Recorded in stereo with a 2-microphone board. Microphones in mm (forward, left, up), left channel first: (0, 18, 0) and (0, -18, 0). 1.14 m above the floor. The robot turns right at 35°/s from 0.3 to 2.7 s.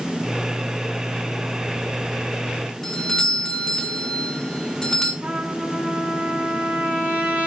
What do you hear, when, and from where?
2.8 s a doorbell: 15° left (ahead or behind), 1.5 m
5.2 s a trumpet: 40° right (ahead or behind), 2.5 m